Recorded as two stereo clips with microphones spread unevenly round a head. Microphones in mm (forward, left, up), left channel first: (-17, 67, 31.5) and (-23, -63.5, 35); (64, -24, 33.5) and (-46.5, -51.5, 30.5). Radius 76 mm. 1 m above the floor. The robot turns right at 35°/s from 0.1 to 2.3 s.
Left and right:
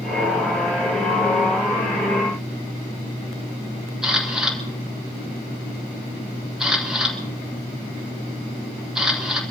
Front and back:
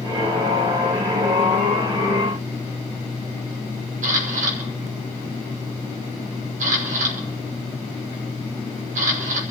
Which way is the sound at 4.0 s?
175° right.